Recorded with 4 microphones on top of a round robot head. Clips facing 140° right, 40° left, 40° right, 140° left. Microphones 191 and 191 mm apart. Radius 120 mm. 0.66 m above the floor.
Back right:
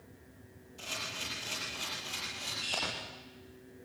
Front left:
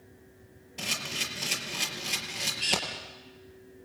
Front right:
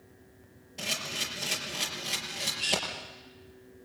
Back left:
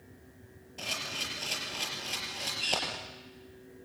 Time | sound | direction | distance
0.8 | a camera shutter | 35° left | 5.5 m